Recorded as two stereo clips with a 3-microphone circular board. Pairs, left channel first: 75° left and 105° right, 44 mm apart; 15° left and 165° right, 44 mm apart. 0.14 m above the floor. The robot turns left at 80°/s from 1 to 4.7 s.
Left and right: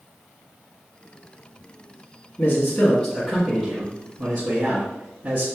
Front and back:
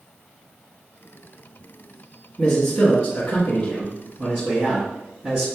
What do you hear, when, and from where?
2.4 s a man speaking: 85° left, 1.7 m; by 5.5 s 100° right, 1.7 m